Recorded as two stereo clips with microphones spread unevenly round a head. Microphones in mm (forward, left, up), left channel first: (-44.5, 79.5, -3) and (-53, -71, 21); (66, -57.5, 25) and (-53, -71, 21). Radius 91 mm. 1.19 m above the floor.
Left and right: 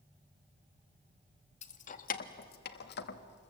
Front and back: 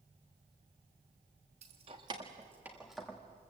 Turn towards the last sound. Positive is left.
turn(degrees=85)